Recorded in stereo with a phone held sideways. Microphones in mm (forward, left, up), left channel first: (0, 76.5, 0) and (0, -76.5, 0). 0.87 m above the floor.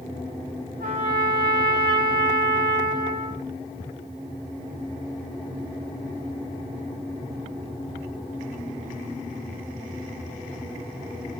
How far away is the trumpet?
About 2 m.